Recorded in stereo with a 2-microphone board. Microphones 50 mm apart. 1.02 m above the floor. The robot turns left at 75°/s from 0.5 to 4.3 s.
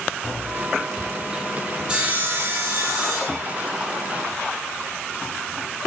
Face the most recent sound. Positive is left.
turn(degrees=160)